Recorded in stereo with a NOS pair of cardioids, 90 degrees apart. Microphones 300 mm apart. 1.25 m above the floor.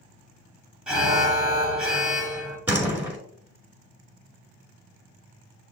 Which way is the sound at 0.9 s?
5° right.